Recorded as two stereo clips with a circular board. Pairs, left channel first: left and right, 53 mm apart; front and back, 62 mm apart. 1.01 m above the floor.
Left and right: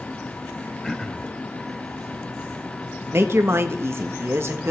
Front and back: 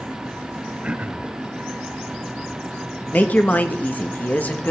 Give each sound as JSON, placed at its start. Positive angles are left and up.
{"t": 0.8, "sound": "throat clearing", "azimuth_deg": 160, "distance_m": 0.7}
{"t": 3.1, "sound": "a woman speaking", "azimuth_deg": -60, "distance_m": 1.2}